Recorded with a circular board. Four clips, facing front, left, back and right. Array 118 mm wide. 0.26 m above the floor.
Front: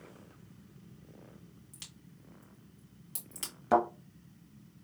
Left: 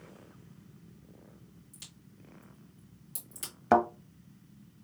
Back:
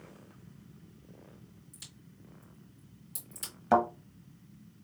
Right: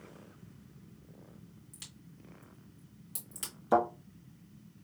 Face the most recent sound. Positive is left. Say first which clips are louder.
# left 3 dB, back 1 dB
turn(degrees=95)